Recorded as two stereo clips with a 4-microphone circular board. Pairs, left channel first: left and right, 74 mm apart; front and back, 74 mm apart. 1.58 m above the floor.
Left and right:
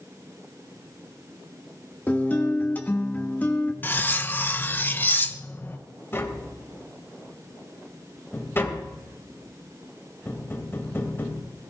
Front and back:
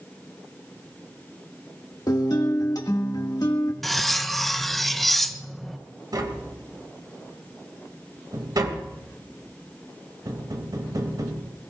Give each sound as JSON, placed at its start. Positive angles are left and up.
{"t": 2.1, "sound": "a guitar", "azimuth_deg": 25, "distance_m": 1.9}
{"t": 3.8, "sound": "cutlery clinking", "azimuth_deg": 85, "distance_m": 0.7}
{"t": 6.1, "sound": "tapping", "azimuth_deg": 150, "distance_m": 2.5}